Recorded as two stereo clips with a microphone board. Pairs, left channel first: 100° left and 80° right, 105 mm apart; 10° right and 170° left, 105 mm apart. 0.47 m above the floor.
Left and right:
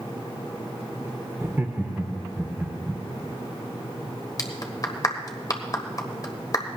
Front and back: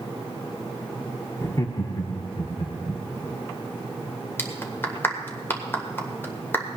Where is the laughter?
40° right, 0.7 m; by 3.0 s 15° right, 1.8 m.